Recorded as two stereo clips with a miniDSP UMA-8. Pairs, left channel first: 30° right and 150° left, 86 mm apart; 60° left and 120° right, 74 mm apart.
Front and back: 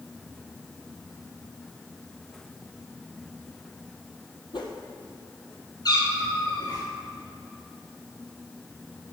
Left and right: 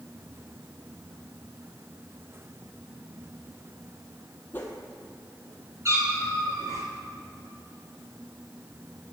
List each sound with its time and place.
4.5 s a whoosh: 5° right, 1.8 m
5.8 s a cat meowing: 65° right, 2.5 m